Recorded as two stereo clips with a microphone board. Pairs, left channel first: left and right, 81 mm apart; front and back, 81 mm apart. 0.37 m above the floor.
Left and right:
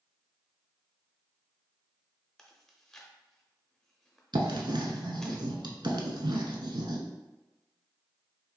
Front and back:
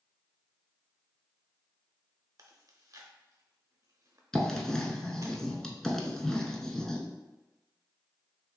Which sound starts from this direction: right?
Writing, at 4.3 s.